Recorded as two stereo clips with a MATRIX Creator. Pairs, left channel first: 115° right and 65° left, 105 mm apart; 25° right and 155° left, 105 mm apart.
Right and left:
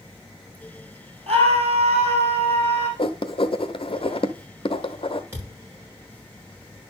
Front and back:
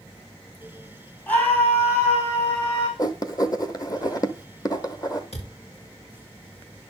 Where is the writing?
75° right, 0.9 m.